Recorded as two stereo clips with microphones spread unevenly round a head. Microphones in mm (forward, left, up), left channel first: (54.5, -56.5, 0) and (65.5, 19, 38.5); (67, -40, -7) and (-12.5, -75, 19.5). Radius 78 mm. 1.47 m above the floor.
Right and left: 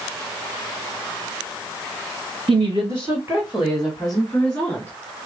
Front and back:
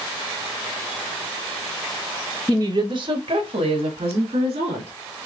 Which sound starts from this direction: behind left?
A woman speaking, at 2.5 s.